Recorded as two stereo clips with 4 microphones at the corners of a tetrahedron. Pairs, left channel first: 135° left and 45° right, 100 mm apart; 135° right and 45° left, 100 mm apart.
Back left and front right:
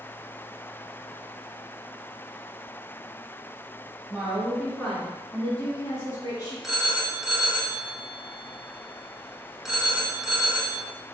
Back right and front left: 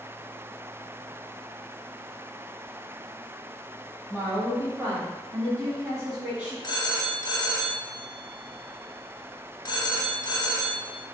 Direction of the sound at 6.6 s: 130° right.